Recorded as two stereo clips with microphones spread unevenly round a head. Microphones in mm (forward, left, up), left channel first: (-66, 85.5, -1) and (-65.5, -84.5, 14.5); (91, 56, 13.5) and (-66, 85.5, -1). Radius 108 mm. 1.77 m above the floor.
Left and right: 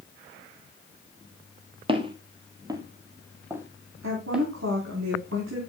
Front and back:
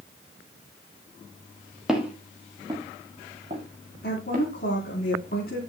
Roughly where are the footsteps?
Right.